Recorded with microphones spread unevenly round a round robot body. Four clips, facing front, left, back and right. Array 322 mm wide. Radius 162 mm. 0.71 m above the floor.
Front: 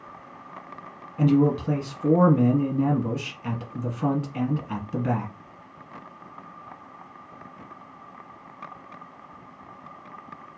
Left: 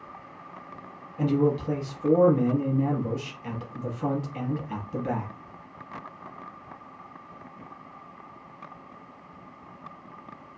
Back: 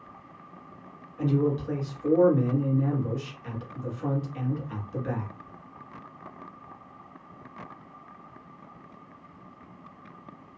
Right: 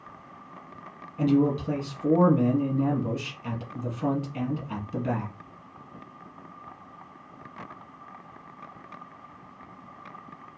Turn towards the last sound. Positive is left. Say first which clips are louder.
# right 1 dB, front 5 dB
turn(degrees=-10)